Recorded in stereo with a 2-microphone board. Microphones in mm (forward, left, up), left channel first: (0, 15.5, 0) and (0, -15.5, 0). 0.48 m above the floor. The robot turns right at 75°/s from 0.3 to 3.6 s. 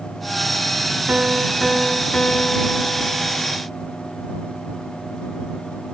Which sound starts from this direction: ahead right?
A piano, at 1.1 s.